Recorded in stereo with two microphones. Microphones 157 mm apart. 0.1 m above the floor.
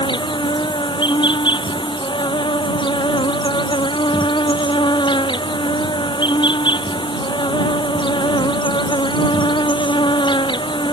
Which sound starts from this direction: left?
An insect, at 0.0 s.